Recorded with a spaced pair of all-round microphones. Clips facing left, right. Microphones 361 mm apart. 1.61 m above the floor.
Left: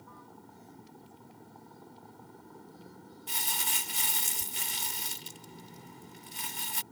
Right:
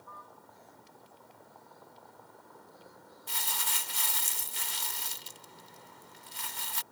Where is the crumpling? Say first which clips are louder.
Even; 40° left (ahead or behind).